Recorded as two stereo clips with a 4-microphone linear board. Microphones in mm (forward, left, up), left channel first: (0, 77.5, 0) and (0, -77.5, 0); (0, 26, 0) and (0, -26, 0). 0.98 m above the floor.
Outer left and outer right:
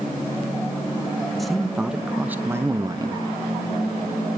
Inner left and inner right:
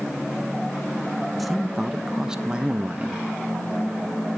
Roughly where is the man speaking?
Centre.